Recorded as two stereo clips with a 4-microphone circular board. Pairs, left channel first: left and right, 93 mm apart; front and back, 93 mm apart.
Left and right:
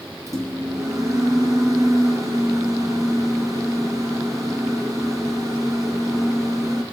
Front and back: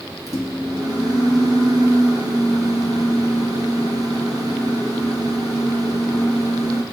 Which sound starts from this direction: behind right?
A microwave, at 0.3 s.